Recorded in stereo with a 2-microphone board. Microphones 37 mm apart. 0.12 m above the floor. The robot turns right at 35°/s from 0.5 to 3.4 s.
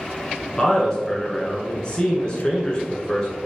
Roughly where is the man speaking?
Centre.